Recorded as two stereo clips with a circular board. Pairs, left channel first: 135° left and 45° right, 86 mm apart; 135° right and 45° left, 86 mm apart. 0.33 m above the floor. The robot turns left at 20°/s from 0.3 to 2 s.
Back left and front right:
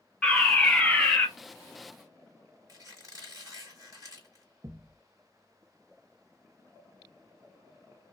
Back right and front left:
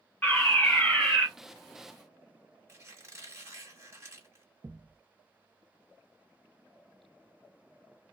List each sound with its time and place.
0.2 s a fire alarm: 155° right, 1.9 m; by 1.3 s 175° right, 1.9 m
2.7 s a squeak: 10° right, 1.6 m
4.6 s a thud: straight ahead, 0.7 m